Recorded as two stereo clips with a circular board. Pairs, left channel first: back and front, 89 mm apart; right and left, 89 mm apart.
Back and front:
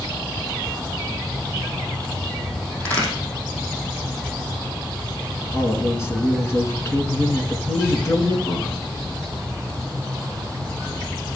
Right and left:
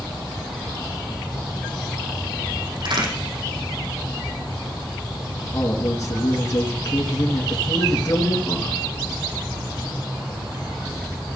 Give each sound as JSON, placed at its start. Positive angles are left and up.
{"t": 2.8, "sound": "a crack", "azimuth_deg": 110, "distance_m": 5.0}
{"t": 5.5, "sound": "a man speaking", "azimuth_deg": -125, "distance_m": 2.5}